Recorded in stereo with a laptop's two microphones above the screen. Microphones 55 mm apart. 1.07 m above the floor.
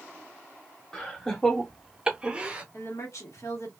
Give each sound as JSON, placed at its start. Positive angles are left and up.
{"t": 0.9, "sound": "laughter", "side_deg": 15, "distance_m": 1.5}
{"t": 2.7, "sound": "a woman speaking", "side_deg": 65, "distance_m": 1.3}